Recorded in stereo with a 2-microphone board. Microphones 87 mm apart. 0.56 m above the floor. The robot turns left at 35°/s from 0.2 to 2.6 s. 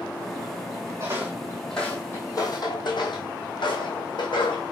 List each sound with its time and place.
1.0 s footsteps: 30° right (ahead or behind), 1.3 m; by 4.6 s 65° left (ahead or behind), 1.7 m